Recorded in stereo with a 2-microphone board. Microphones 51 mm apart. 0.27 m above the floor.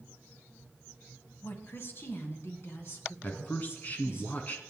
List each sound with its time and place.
1.4 s a woman speaking: 45° left (ahead or behind), 1.9 m; by 4.2 s 50° left (ahead or behind), 4.5 m
3.2 s a man speaking: 35° left (ahead or behind), 2.5 m